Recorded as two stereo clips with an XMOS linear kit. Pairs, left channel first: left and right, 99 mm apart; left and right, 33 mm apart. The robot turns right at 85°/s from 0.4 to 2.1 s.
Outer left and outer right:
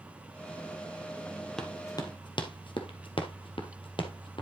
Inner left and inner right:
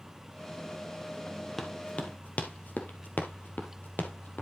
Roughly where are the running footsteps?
Centre.